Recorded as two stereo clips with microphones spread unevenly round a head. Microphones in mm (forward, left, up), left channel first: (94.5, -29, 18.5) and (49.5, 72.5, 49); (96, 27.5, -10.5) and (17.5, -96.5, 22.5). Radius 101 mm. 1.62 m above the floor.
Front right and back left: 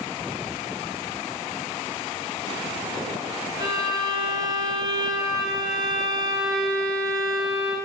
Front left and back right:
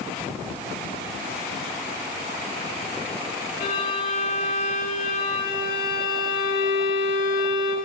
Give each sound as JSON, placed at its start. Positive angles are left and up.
{"t": 3.6, "sound": "a violin", "azimuth_deg": 60, "distance_m": 6.0}